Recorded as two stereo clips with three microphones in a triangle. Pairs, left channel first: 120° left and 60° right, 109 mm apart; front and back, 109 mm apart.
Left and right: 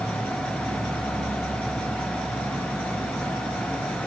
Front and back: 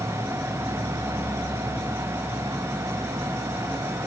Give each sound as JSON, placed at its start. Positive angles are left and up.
{"t": 0.0, "sound": "an insect", "azimuth_deg": -120, "distance_m": 10.0}